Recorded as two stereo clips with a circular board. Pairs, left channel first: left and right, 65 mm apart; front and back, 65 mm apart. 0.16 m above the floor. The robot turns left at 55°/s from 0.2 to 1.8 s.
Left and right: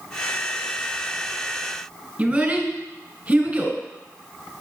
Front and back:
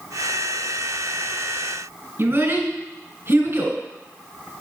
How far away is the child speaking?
About 1.7 m.